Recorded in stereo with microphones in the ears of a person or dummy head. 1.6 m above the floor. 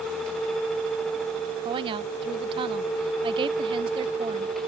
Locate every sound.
1.6 s a woman speaking: 30° right (ahead or behind)